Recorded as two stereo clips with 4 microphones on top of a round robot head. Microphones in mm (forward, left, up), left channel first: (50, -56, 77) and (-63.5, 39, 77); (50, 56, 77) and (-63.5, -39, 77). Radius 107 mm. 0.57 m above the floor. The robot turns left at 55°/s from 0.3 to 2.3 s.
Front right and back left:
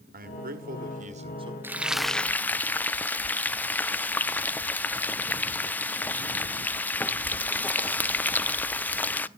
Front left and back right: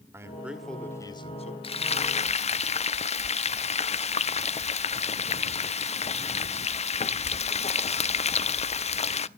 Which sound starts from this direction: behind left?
A man speaking, at 0.1 s.